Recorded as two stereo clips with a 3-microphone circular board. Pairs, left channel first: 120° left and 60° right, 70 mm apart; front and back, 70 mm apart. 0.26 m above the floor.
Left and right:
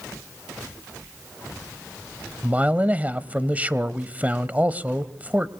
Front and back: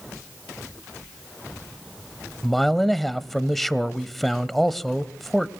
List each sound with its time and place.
2.4 s a man speaking: 85° right, 0.9 m